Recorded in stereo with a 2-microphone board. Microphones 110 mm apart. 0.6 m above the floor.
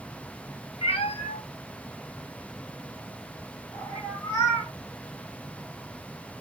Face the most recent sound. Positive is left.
turn(degrees=35)  # may be behind; listen again after turning